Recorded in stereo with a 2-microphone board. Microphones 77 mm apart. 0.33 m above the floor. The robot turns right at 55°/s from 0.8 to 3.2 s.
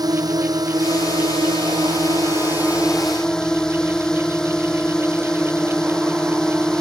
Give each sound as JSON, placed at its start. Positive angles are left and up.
{"t": 0.0, "sound": "a drone", "azimuth_deg": -125}